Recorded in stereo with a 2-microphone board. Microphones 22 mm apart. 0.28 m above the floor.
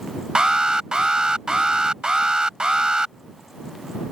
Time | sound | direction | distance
0.3 | an alarm | 40° right (ahead or behind) | ?